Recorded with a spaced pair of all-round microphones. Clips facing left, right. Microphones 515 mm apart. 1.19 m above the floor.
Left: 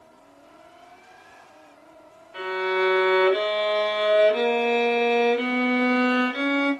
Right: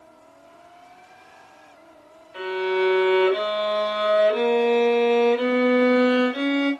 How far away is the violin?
About 2.5 m.